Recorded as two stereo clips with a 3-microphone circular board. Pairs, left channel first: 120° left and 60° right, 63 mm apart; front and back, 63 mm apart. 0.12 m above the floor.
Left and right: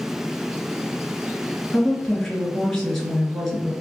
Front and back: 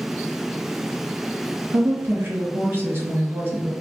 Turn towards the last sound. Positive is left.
turn(degrees=-160)